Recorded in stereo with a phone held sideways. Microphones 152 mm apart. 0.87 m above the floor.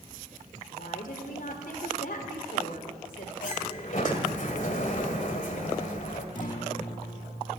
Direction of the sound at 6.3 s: 55° left (ahead or behind).